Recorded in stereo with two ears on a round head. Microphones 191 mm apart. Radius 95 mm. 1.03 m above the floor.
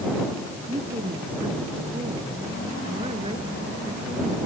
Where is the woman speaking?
25° right (ahead or behind).